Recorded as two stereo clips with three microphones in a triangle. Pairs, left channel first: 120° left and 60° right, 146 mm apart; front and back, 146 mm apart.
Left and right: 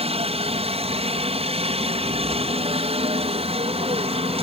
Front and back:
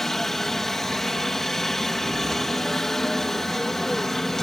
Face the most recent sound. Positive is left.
turn(degrees=-85)